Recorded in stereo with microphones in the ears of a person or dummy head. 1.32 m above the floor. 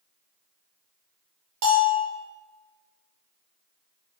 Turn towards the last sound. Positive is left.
turn(degrees=-35)  # may be behind; listen again after turning